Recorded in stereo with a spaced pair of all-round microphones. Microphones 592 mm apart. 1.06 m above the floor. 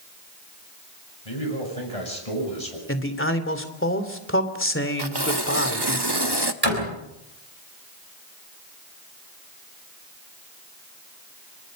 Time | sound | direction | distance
1.2 | a man speaking | 70° left (ahead or behind) | 8 m
2.9 | a man speaking | 20° left (ahead or behind) | 3 m
5.0 | tearing paper | 40° right (ahead or behind) | 1.3 m
6.6 | a door slam | 75° right (ahead or behind) | 5.5 m